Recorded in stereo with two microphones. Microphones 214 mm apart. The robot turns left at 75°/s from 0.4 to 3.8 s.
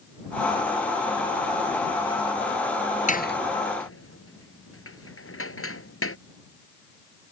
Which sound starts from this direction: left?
A door slam, at 3.1 s.